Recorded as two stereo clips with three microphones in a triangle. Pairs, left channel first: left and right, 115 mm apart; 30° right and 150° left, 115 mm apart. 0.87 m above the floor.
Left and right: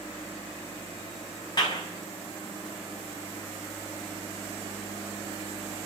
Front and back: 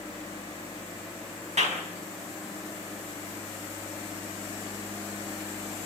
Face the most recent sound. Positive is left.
turn(degrees=140)